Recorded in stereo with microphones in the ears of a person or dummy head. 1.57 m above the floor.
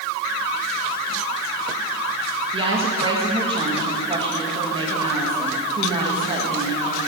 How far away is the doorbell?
No doorbell in this recording.